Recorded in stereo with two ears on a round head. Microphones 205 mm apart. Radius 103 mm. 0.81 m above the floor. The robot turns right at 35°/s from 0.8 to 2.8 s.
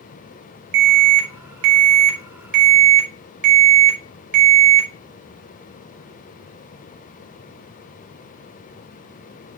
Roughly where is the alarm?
Right.